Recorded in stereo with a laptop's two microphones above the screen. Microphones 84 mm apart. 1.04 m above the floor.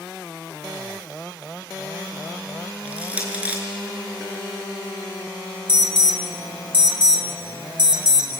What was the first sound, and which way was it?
Crushing, 15° right (ahead or behind).